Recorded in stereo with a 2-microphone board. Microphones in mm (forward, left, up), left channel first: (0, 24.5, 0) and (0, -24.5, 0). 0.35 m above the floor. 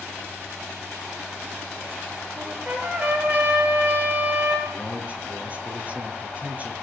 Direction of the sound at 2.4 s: 30° right (ahead or behind).